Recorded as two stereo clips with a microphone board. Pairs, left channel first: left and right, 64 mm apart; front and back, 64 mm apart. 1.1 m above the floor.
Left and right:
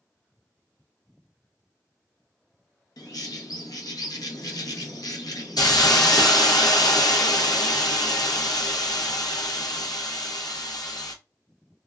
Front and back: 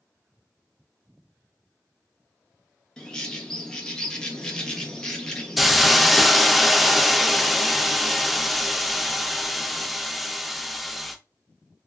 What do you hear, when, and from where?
3.0 s a bird: 75° left, 0.6 m
5.6 s a hiss: 90° left, 0.5 m